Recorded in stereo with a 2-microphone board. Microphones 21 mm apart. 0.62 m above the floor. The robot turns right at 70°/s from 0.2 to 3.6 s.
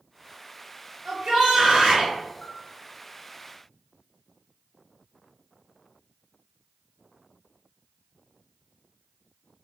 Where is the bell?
45° left (ahead or behind), 1.4 m; by 2.6 s 50° left (ahead or behind), 1.4 m.